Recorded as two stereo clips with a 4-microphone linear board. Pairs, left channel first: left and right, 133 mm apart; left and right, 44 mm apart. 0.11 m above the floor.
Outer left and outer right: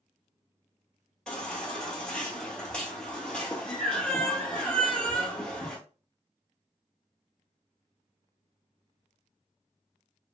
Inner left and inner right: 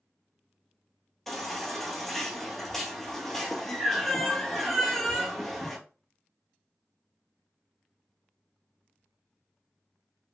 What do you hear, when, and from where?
1.3 s a baby crying: 10° left (ahead or behind), 0.9 m